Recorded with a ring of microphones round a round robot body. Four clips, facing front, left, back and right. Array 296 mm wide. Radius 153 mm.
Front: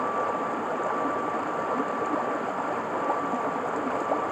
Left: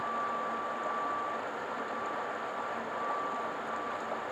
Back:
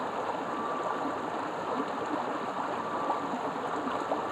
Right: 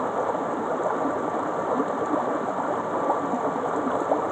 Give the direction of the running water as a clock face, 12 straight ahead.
3 o'clock.